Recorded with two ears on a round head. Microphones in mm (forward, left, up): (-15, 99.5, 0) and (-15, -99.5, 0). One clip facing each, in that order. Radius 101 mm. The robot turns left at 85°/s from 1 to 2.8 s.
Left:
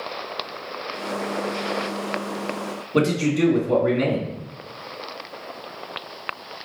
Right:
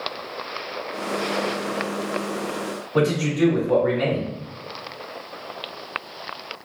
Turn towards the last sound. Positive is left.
turn(degrees=35)  # may be behind; listen again after turning